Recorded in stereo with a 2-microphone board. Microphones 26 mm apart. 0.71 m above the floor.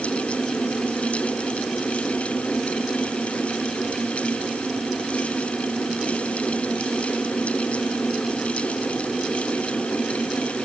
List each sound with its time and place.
Only background noise.